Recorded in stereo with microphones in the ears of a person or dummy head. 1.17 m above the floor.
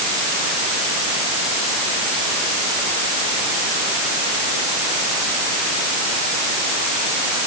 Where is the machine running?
I don't hear a machine running.